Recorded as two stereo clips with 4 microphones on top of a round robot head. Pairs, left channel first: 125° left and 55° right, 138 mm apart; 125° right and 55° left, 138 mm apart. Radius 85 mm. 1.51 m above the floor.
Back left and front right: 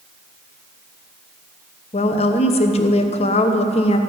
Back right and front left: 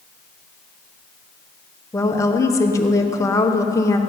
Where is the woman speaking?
170° left, 1.1 m.